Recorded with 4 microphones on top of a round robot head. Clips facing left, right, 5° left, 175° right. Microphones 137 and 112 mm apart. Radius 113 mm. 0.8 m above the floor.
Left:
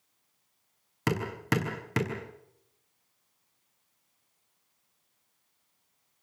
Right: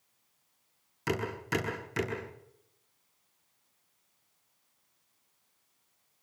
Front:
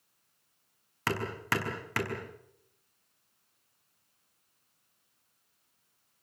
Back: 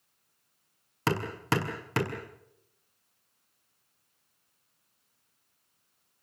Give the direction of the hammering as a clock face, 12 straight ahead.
8 o'clock.